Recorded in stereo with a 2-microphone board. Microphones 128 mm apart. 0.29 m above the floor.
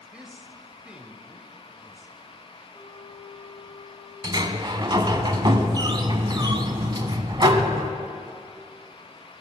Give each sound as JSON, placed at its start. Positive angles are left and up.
{"t": 0.1, "sound": "a man speaking", "side_deg": -5, "distance_m": 0.9}
{"t": 2.7, "sound": "a flute", "side_deg": 50, "distance_m": 1.9}
{"t": 4.2, "sound": "a sliding door", "side_deg": -35, "distance_m": 0.7}